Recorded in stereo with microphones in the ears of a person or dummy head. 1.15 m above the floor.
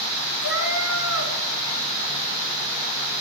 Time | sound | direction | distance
0.4 | a cat meowing | 50° left (ahead or behind) | 2.5 m